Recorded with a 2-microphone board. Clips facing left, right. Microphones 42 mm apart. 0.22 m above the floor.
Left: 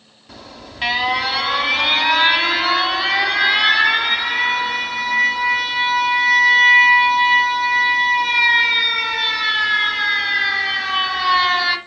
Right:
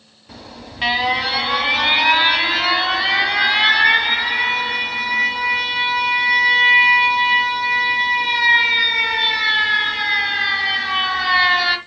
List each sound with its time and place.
0.3 s an alarm: 5° right (ahead or behind), 1.8 m